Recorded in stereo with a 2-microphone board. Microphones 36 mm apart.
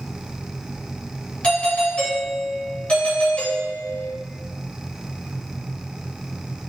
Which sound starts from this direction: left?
A doorbell, at 1.4 s.